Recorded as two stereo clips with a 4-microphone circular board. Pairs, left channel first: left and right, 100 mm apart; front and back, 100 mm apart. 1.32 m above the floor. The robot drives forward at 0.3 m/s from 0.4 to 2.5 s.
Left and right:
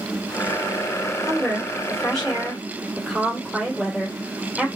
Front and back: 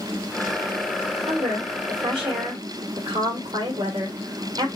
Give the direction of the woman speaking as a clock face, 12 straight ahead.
6 o'clock.